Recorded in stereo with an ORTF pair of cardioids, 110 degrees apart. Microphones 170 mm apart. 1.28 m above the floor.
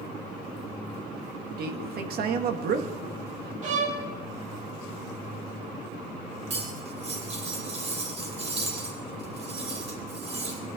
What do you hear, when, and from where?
1.6 s a man speaking: 65° right, 1.7 m
3.6 s a violin: 50° right, 3.5 m
6.5 s cutlery clinking: 40° right, 3.5 m